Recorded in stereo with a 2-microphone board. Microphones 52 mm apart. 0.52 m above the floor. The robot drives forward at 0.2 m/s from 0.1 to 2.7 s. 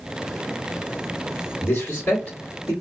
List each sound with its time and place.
1.6 s a man speaking: 45° left (ahead or behind), 1.5 m; by 2.7 s 40° left (ahead or behind), 1.5 m